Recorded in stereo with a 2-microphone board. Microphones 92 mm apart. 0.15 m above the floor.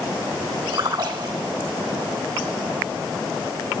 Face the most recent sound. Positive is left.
turn(degrees=-55)  # may be behind; listen again after turning